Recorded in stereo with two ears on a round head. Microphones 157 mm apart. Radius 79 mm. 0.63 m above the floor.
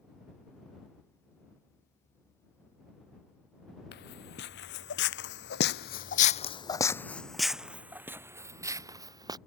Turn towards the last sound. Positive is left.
turn(degrees=-25)  # may be behind; listen again after turning